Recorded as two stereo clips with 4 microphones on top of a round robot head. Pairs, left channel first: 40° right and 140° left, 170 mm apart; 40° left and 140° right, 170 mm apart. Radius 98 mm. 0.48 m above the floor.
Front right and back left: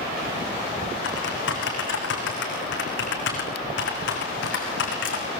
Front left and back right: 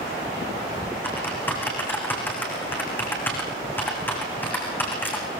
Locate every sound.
1.0 s typing on a keyboard: 40° right, 6 m